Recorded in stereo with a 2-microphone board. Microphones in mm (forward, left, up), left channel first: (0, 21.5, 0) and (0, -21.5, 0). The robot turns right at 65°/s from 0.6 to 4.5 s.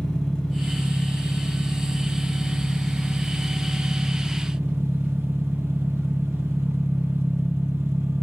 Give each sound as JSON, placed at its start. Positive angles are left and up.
{"t": 0.0, "sound": "an engine running", "azimuth_deg": 10, "distance_m": 4.0}